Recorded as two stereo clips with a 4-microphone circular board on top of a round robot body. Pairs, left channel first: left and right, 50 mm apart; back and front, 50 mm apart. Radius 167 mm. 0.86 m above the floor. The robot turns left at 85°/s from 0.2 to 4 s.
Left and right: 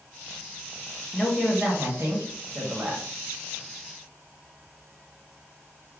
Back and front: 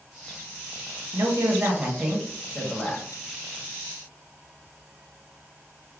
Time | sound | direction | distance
1.1 | a man speaking | straight ahead | 1.1 m